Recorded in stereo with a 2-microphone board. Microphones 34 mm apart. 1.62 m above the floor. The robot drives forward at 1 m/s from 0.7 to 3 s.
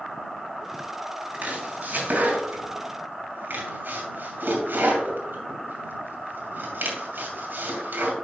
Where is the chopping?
50° right (ahead or behind), 3 m; by 8.1 s 85° right, 2.5 m.